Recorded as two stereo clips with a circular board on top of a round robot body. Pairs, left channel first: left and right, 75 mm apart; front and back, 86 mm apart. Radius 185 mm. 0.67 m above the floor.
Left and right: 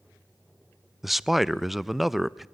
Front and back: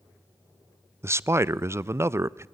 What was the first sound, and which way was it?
A man speaking, 175° right.